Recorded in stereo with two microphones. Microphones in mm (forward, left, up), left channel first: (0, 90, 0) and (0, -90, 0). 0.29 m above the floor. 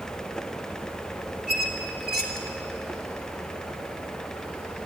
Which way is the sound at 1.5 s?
65° right (ahead or behind).